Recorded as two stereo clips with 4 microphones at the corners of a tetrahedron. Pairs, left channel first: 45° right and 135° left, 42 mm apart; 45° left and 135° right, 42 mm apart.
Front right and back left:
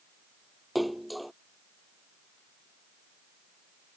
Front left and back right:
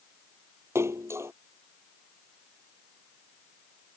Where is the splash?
135° right.